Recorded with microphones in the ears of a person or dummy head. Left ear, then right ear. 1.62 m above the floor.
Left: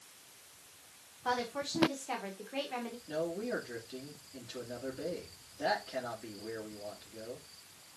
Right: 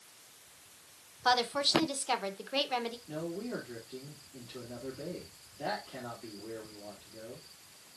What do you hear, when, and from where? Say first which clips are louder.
1.2 s a woman speaking: right 7 dB; 45° right (ahead or behind), 1.2 m
3.1 s a man speaking: left 3 dB; 20° left (ahead or behind), 2.5 m